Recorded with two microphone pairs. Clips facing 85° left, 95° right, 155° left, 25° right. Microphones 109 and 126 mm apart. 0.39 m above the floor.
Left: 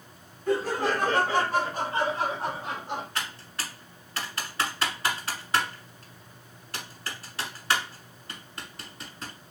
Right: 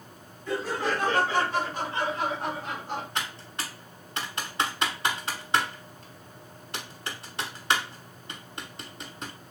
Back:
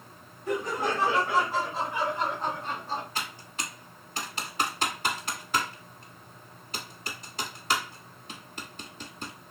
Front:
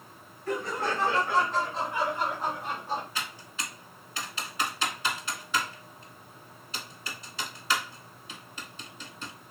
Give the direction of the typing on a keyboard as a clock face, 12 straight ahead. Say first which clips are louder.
Right 1 dB, back 1 dB; 5 o'clock.